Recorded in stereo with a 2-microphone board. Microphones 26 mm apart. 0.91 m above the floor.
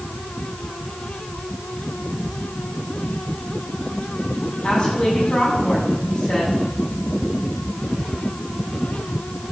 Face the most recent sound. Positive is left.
turn(degrees=30)  # may be behind; listen again after turning